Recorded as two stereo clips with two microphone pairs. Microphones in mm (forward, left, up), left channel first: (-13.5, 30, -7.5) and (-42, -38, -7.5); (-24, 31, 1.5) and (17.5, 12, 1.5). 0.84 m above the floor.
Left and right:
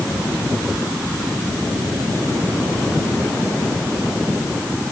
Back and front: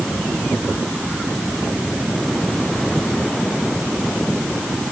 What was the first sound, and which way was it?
Only background noise.